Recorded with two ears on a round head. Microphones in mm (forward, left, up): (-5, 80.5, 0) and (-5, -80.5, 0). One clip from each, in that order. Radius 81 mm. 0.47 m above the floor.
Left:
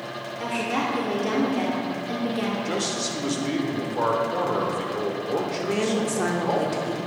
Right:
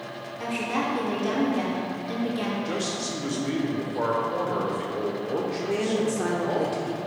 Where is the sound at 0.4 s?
5° left (ahead or behind), 1.1 m.